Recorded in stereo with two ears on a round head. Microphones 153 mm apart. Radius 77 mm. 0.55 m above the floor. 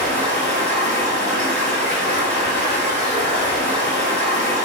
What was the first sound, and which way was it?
Running water, 10° left (ahead or behind).